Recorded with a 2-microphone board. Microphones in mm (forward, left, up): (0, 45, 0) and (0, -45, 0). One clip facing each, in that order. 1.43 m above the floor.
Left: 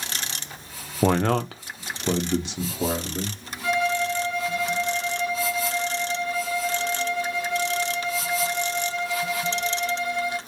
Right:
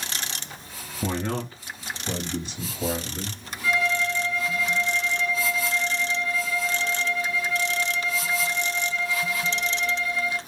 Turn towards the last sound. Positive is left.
turn(degrees=75)  # may be behind; listen again after turning